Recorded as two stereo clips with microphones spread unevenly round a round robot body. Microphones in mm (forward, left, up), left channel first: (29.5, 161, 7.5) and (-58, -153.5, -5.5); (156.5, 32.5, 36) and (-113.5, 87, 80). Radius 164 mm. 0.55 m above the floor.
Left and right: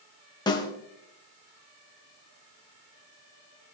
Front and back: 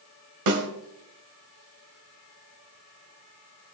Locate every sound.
0.5 s a snare drum: 150° left, 1.8 m